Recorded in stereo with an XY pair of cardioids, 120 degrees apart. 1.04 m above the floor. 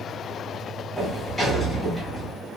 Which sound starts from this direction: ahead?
A sliding door, at 1.0 s.